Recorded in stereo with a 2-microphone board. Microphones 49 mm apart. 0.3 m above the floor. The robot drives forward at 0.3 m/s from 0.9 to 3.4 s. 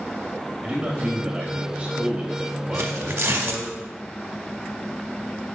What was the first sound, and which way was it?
A man speaking, 25° right (ahead or behind).